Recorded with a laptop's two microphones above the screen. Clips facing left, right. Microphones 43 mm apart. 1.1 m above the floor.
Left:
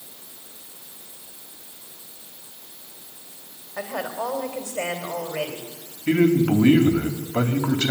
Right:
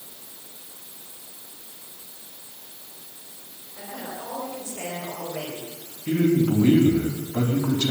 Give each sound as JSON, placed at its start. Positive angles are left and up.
{"t": 3.8, "sound": "a woman speaking", "side_deg": 80, "distance_m": 4.0}
{"t": 6.1, "sound": "a man speaking", "side_deg": 55, "distance_m": 3.0}